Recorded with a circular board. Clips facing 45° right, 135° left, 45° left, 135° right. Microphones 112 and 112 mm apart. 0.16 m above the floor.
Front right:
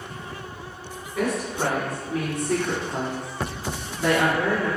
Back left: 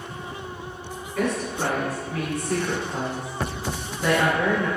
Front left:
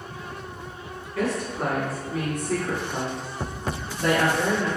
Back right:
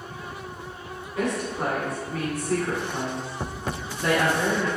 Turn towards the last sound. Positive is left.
turn(degrees=15)